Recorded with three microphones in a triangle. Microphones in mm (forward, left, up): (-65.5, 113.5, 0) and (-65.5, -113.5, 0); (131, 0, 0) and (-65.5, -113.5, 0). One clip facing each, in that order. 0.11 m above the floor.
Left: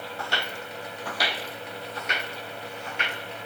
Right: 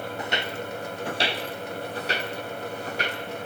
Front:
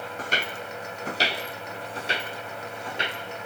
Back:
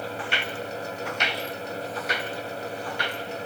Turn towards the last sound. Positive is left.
turn(degrees=-40)